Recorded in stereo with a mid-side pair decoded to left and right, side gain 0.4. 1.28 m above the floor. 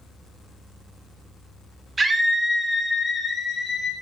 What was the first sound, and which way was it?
A scream, 35° right.